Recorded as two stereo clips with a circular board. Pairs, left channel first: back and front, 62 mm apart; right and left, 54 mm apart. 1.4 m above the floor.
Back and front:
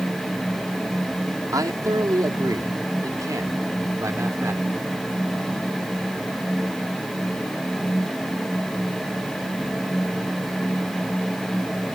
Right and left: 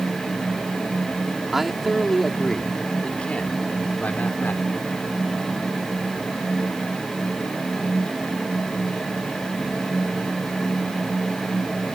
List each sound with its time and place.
1.5 s a man speaking: 5° left; by 4.7 s 40° right